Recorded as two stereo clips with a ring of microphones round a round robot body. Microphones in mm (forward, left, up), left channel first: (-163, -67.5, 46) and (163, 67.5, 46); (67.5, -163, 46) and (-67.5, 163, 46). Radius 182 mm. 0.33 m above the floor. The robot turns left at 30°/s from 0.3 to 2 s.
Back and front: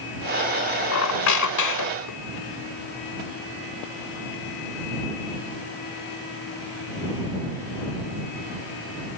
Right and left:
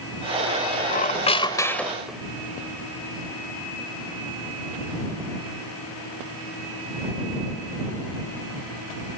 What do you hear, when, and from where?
0.9 s a squeak: 125° right; by 2.2 s 160° right